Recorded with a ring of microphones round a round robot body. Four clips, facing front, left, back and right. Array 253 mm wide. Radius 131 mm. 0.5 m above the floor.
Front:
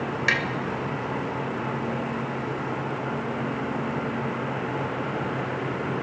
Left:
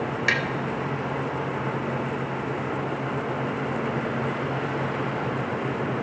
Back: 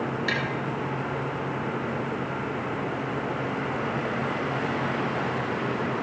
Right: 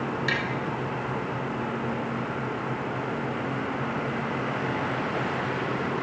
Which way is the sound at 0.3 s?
45° left.